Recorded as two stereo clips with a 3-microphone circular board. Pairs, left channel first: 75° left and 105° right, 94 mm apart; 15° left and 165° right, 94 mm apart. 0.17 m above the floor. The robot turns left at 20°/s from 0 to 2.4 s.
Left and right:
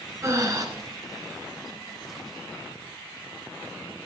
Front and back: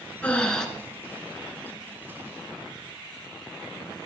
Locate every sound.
0.2 s breathing: 60° right, 1.9 m; by 0.7 s 65° right, 1.9 m